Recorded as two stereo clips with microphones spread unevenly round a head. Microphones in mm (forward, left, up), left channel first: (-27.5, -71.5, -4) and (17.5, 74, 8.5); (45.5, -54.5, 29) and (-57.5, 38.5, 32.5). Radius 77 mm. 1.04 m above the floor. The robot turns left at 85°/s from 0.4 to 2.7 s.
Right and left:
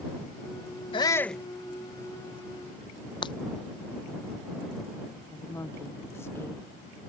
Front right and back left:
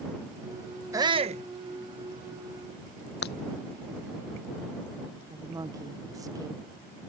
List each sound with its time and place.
0.9 s a shout: 155° right; by 1.4 s 160° left
3.2 s breaking glass: 45° right
5.3 s a woman speaking: 170° right